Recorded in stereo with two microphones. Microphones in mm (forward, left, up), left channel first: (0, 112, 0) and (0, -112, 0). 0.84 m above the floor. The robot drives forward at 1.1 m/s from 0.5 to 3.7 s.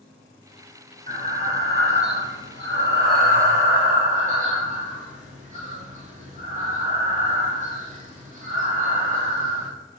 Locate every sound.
1.1 s breathing: 35° right (ahead or behind), 1.9 m